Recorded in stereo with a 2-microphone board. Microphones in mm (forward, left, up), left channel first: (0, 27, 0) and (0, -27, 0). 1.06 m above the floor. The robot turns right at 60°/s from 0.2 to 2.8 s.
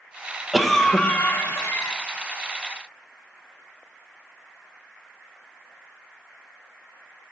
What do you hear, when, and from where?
0.5 s a cough: 5° right, 0.7 m; by 2.0 s 85° left, 0.7 m